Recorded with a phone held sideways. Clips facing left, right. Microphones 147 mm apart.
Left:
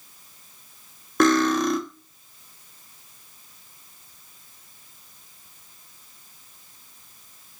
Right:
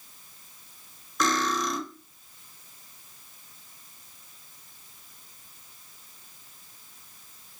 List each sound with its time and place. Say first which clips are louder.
1.2 s cutlery clinking: left 9 dB; 60° left (ahead or behind), 1.2 m